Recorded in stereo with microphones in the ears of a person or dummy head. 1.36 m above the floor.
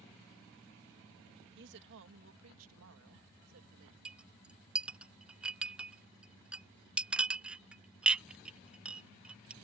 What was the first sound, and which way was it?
A woman speaking, 60° right (ahead or behind).